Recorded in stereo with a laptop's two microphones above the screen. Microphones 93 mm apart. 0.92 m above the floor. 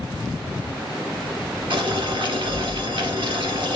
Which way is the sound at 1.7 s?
65° right (ahead or behind).